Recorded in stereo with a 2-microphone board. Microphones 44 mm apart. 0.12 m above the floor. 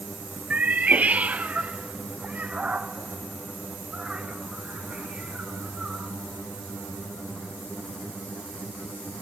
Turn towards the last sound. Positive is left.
turn(degrees=-25)  # may be behind; listen again after turning